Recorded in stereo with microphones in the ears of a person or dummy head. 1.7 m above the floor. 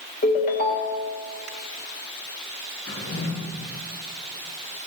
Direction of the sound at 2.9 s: 55° left (ahead or behind).